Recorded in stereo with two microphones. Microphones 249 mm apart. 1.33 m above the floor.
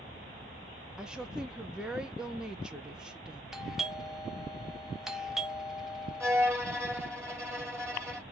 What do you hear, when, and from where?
1.0 s a woman speaking: 5° right (ahead or behind), 0.9 m
3.5 s a doorbell: centre (ahead or behind), 0.7 m
6.2 s a violin: 10° right (ahead or behind), 1.4 m